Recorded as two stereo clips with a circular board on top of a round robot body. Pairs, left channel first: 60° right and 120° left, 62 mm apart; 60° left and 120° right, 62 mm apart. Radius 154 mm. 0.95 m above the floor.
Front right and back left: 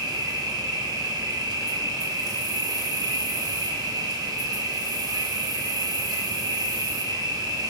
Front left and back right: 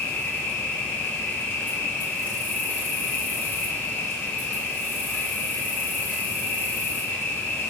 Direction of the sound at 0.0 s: 120° left.